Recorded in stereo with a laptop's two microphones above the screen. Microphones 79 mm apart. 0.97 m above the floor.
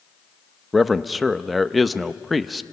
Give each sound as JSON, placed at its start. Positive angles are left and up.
{"t": 0.7, "sound": "a man speaking", "side_deg": 0, "distance_m": 0.9}